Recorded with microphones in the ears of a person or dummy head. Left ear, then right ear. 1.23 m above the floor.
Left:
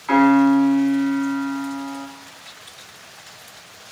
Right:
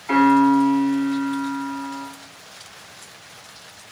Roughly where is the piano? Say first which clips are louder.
Even; left.